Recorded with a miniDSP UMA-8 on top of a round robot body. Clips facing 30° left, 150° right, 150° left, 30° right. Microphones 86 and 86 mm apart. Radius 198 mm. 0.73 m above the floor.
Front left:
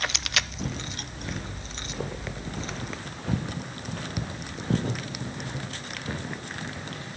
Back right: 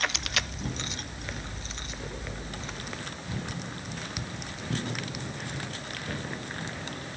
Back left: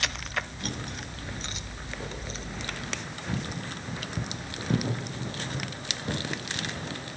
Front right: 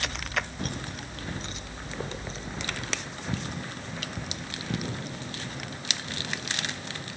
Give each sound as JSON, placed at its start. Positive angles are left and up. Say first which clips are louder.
{"t": 0.6, "sound": "footsteps", "louder": "front left 1 dB, front right 1 dB", "azimuth_deg": 15, "distance_m": 4.5}